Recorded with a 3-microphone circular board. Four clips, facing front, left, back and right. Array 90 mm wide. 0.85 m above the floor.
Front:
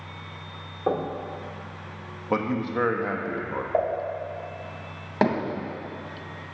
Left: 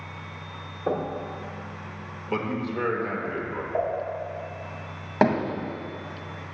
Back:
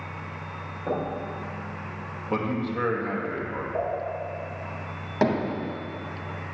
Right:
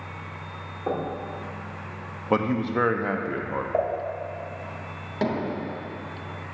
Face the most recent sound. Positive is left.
turn(degrees=65)